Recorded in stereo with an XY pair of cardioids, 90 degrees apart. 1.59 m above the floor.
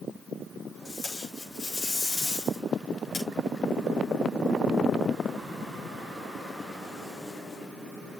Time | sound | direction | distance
0.8 | tape being pulled | 45° left | 5.5 m